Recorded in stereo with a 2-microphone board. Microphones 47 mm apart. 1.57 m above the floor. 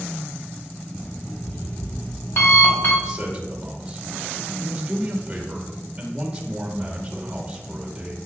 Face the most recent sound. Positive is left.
turn(degrees=-20)  # may be behind; listen again after turning